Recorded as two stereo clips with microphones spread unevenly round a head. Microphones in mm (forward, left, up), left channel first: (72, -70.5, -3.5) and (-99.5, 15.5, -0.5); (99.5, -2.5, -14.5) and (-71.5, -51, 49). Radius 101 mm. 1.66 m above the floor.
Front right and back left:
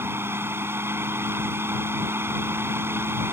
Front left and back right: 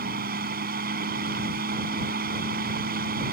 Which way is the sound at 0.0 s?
130° right.